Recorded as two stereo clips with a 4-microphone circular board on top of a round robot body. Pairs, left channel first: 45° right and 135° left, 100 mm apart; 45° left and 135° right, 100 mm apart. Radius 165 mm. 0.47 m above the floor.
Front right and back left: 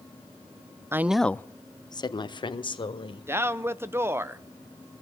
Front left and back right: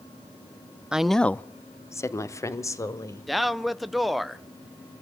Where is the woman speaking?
155° left, 0.7 m; by 3.3 s 15° right, 2.5 m.